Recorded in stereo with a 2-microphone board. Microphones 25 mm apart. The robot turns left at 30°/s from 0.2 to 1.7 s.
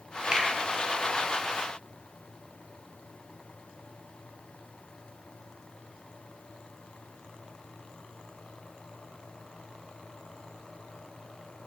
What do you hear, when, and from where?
0.3 s a finger snap: 25° right (ahead or behind), 0.9 m; by 0.5 s 20° right (ahead or behind), 0.9 m